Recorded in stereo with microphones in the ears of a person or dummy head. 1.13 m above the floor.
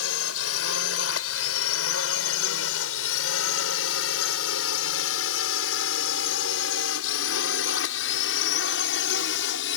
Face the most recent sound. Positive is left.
turn(degrees=60)  # may be behind; listen again after turning